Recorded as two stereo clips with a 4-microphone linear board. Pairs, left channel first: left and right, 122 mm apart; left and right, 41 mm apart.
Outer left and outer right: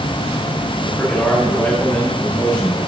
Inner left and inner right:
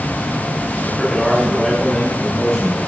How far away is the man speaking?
About 8 m.